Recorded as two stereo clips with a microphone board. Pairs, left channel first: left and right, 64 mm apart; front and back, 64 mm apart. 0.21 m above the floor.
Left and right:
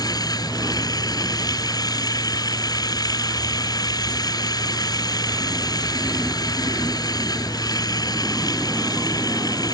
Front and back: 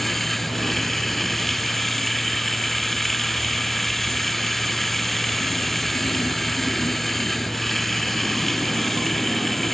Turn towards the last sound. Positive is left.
turn(degrees=85)